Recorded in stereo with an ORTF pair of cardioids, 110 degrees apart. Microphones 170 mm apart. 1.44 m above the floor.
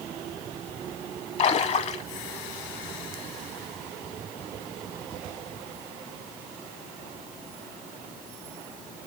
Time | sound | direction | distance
1.4 | a splash | 40° left | 2 m